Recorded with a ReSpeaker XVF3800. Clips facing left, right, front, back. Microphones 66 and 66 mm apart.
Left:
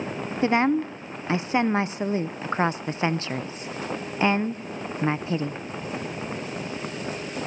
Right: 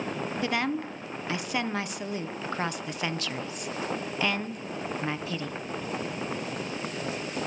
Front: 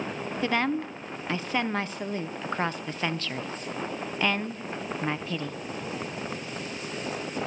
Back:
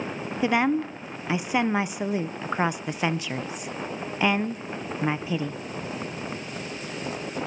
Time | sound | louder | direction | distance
0.4 | a woman speaking | left 9 dB, back 4 dB | 115° left | 0.6 m